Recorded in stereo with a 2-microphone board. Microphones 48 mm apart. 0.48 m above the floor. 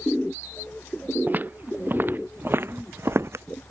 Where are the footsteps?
40° right (ahead or behind); by 3.5 s 65° right (ahead or behind).